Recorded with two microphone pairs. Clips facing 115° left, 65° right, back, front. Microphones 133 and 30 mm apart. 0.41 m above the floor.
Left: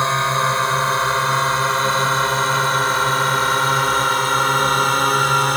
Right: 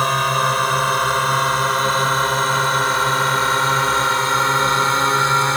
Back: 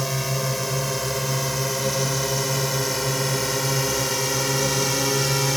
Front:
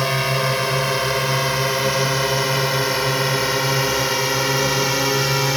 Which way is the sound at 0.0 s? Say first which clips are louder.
Right 1 dB, front 6 dB; 20° left.